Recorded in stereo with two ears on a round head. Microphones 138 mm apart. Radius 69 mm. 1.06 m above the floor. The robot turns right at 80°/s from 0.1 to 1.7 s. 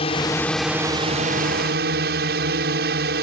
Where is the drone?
140° left; by 3.2 s 90° right.